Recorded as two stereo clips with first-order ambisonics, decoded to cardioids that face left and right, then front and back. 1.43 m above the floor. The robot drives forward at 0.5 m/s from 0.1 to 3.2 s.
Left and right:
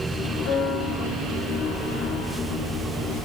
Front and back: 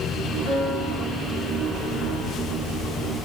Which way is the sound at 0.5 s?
55° left.